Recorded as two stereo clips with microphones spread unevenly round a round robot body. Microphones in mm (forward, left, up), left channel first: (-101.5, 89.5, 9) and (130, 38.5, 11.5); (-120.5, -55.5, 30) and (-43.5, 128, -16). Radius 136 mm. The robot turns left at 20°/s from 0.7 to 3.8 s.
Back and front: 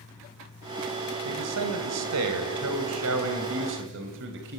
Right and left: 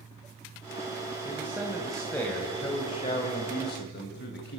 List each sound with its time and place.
1.2 s a man speaking: 5° right, 3 m; by 4.6 s 60° right, 3 m